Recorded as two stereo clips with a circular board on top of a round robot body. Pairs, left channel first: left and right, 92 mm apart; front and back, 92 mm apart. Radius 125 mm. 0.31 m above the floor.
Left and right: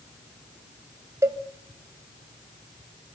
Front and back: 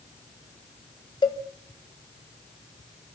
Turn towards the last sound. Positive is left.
turn(degrees=-30)